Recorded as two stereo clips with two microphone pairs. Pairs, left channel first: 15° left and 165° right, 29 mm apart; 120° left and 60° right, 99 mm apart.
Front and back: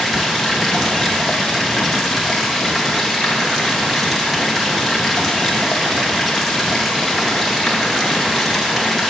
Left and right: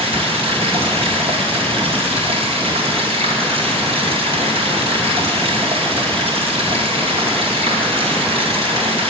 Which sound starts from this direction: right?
Running water, at 0.0 s.